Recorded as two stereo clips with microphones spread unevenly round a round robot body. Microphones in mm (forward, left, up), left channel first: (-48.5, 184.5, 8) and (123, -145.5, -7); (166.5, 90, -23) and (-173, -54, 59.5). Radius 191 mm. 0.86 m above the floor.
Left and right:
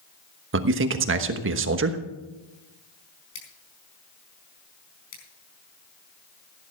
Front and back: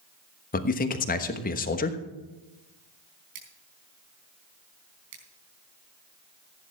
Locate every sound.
0.5 s a man speaking: 20° right, 1.1 m
3.4 s scissors: 175° left, 4.5 m